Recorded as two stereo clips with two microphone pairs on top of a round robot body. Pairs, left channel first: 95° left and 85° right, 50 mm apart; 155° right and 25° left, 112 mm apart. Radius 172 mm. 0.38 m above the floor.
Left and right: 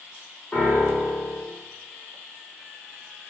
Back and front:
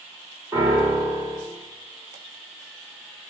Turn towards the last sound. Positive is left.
turn(degrees=45)